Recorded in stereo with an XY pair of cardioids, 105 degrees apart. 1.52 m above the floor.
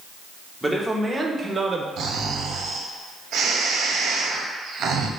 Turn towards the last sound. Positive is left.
turn(degrees=-70)